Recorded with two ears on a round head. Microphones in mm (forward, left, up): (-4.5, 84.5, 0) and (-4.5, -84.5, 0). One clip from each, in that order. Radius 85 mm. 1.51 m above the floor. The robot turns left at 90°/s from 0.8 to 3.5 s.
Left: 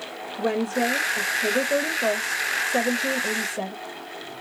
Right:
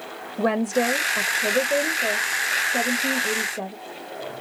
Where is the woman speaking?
105° right, 0.6 m; by 3.8 s 10° left, 0.6 m.